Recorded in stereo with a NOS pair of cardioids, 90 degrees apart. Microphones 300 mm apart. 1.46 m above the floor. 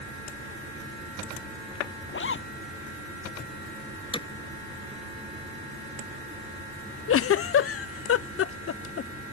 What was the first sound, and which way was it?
A zipper, 40° left.